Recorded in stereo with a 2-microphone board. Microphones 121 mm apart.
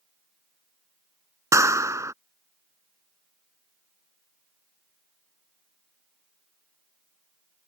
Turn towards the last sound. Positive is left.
turn(degrees=-25)  # may be behind; listen again after turning